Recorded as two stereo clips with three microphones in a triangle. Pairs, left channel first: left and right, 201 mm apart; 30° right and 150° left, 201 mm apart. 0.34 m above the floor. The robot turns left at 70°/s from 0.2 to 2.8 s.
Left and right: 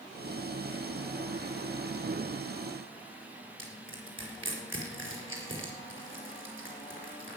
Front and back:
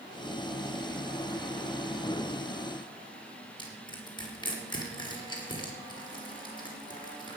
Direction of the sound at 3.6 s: 95° right.